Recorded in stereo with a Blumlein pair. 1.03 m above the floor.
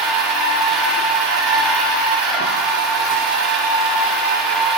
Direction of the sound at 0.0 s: 30° right.